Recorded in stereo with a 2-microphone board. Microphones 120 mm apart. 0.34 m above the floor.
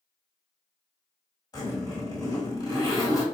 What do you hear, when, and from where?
1.5 s a zipper: 35° left (ahead or behind), 2 m